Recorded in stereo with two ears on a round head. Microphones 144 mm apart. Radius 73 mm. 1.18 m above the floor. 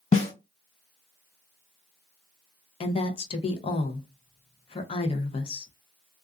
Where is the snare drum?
40° left (ahead or behind), 1.6 m.